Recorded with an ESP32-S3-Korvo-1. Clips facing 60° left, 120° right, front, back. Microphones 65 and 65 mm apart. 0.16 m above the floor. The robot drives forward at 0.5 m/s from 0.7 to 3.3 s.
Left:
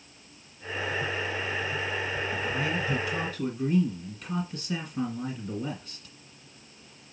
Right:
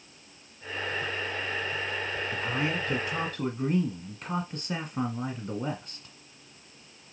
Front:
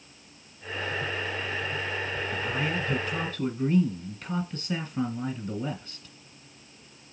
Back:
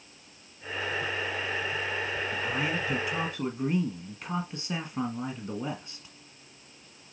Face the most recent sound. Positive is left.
turn(degrees=-120)